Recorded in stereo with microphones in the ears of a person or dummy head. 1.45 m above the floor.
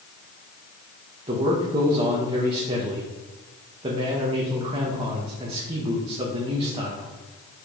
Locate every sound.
1.3 s a man speaking: 25° right (ahead or behind), 0.6 m